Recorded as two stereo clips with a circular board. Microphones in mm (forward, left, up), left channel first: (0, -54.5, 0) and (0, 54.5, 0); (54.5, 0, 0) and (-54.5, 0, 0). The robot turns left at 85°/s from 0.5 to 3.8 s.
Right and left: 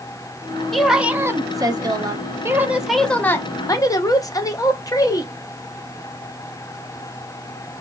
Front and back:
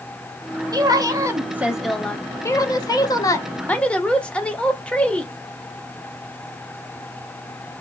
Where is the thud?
I don't hear a thud.